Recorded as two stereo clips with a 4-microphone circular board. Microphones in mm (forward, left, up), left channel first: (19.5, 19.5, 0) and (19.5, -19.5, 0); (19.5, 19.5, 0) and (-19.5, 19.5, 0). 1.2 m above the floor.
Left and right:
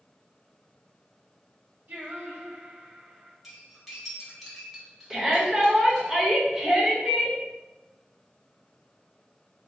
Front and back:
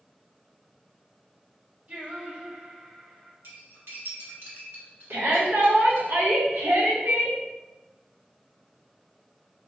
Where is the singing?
130° right, 1.0 m.